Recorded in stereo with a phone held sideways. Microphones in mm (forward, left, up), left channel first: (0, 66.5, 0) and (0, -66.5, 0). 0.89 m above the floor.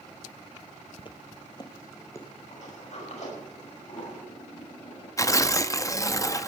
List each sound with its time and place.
1.0 s footsteps: 40° left (ahead or behind), 1.1 m; by 2.3 s 20° left (ahead or behind), 2 m
2.5 s a sliding door: 65° left (ahead or behind), 6 m
5.2 s tearing paper: 25° left (ahead or behind), 0.7 m